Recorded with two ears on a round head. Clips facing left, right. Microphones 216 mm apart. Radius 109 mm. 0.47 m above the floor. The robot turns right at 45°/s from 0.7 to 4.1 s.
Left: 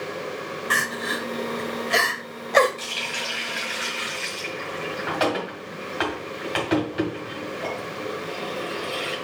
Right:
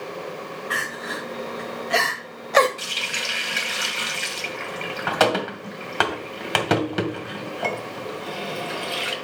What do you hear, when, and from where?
0.7 s crying: 65° left (ahead or behind), 1.5 m; by 2.7 s 10° right (ahead or behind), 1.5 m
2.8 s a running tap: 15° right (ahead or behind), 2.0 m; by 9.2 s 70° right (ahead or behind), 2.0 m